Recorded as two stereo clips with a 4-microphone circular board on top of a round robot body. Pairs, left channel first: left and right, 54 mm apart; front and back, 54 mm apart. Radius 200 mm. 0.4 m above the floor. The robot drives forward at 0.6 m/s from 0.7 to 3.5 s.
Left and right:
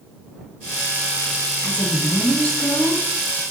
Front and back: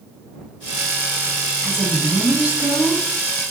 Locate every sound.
1.6 s a woman speaking: 70° left, 1.0 m; by 3.0 s 155° left, 1.2 m